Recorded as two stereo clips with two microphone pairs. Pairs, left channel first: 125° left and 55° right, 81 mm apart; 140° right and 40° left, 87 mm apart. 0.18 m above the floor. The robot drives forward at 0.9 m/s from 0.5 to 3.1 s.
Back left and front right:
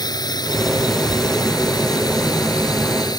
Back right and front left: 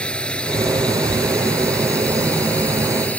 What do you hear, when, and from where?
0.0 s a drone: 140° left; by 3.2 s 145° left